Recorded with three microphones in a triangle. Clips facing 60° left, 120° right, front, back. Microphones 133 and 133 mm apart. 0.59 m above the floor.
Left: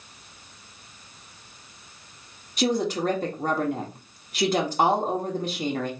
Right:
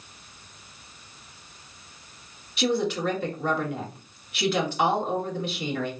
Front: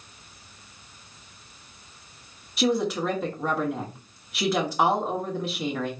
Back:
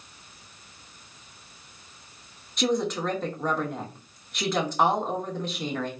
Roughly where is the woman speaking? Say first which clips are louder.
Left 1 dB, front 2 dB; left.